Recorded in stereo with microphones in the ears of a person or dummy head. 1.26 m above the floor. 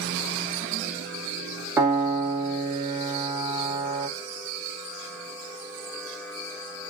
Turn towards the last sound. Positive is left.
turn(degrees=-20)  # may be behind; listen again after turning